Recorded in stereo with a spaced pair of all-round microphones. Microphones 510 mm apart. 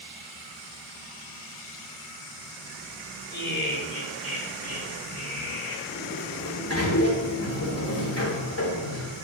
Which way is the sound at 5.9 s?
30° left (ahead or behind).